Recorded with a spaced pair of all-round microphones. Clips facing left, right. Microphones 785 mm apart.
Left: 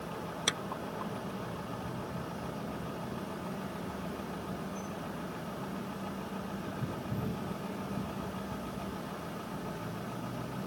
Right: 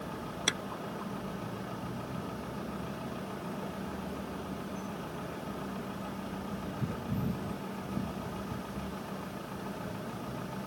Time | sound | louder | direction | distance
0.5 | a clap | right 2 dB | 15° left (ahead or behind) | ?